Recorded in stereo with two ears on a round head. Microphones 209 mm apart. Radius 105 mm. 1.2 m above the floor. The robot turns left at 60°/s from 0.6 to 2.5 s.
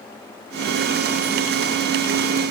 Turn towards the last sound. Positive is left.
No sound to turn to.